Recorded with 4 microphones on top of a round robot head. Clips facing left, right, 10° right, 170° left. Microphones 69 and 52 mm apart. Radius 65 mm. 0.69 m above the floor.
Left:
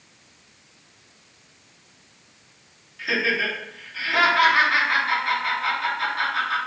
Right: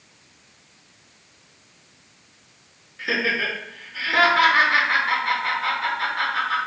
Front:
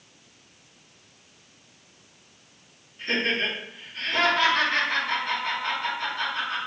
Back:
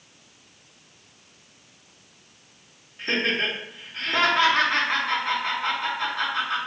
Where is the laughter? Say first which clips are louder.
Even, back 1 dB; 140° right, 2 m.